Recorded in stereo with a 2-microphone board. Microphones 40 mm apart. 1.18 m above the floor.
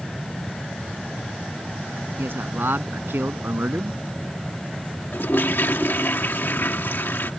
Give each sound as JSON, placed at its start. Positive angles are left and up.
{"t": 2.2, "sound": "a man speaking", "side_deg": -55}
{"t": 5.1, "sound": "a toilet flushing", "side_deg": 55}